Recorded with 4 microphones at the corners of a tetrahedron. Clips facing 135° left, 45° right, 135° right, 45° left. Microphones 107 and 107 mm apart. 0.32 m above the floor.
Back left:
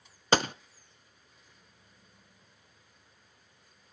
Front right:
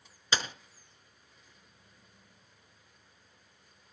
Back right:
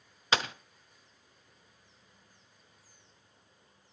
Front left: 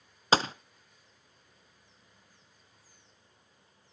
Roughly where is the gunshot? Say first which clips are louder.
Back left 8 dB, front left 5 dB; left.